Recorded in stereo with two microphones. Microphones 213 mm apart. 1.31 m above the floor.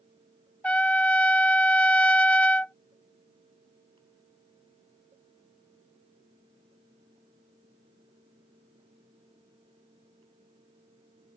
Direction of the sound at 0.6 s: 5° left (ahead or behind).